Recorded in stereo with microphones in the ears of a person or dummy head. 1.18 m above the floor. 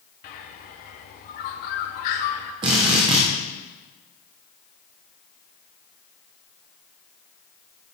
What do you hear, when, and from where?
0.2 s a bird: 40° left (ahead or behind), 0.7 m
2.6 s a drill: 25° right (ahead or behind), 0.6 m